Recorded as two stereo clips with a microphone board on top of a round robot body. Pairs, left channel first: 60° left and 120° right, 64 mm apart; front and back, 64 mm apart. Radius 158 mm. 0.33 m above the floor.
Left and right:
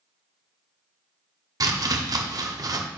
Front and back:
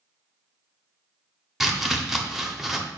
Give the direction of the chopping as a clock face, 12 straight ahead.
3 o'clock.